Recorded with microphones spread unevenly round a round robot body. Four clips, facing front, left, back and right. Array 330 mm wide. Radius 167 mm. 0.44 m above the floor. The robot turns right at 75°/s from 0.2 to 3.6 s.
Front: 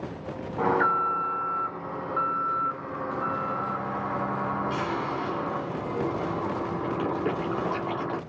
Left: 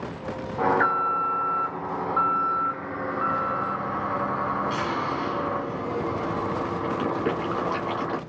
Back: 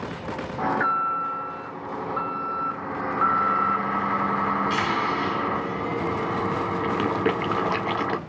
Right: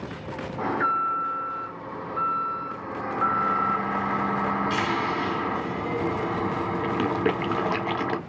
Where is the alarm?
Straight ahead, 1.6 m; by 8.2 s 135° right, 1.6 m.